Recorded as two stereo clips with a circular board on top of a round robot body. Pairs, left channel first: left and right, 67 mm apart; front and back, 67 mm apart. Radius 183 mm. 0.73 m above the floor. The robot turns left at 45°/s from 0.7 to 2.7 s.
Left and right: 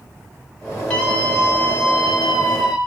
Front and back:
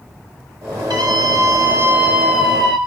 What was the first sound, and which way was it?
A scream, 165° left.